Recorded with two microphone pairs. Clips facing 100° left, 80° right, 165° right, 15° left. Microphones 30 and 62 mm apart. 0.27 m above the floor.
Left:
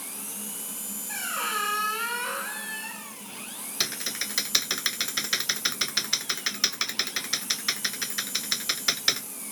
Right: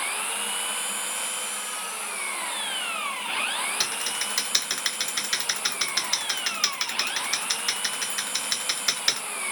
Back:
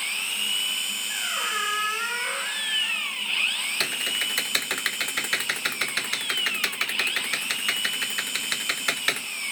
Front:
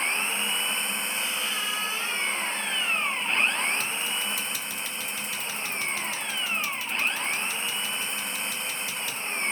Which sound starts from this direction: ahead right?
An engine running, at 0.0 s.